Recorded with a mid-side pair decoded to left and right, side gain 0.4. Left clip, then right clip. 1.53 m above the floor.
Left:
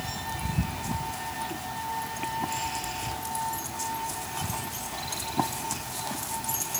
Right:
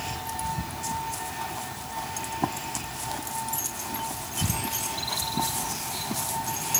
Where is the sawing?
I don't hear sawing.